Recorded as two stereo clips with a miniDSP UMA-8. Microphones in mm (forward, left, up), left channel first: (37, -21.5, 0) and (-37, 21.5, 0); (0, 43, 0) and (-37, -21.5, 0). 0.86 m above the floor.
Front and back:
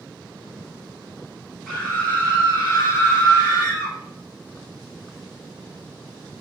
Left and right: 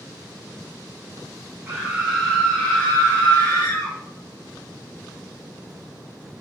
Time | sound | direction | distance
1.7 | a scream | 110° right | 0.7 m